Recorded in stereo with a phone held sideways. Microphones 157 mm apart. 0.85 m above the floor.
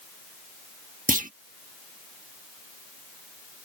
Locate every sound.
1.1 s a clunk: 60° right (ahead or behind)